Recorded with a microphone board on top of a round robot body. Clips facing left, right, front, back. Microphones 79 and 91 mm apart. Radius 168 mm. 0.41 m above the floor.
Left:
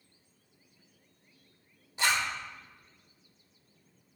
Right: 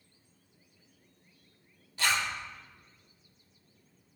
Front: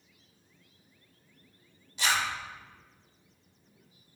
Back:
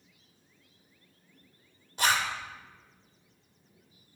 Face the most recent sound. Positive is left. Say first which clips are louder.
# left 1 dB, back 2 dB
turn(degrees=155)